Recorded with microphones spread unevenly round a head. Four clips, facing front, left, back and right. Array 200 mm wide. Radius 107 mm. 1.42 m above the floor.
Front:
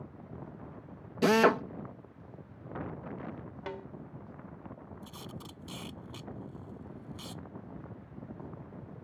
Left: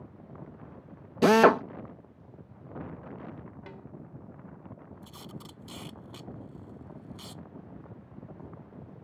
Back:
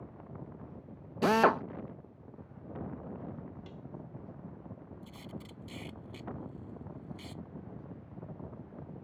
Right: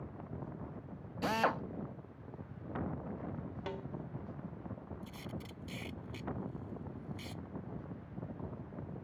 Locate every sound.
1.2 s a drill: 85° left
3.7 s a snare drum: 35° right
5.0 s tape being pulled: 40° left